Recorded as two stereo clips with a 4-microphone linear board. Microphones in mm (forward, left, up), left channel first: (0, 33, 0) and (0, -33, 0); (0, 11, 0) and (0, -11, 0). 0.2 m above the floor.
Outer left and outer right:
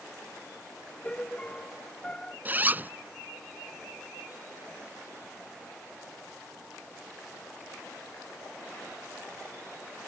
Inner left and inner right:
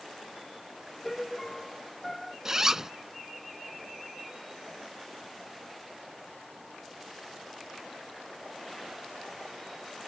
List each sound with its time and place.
1.0 s a piano: 15° left (ahead or behind)
2.5 s a zipper: 30° right (ahead or behind)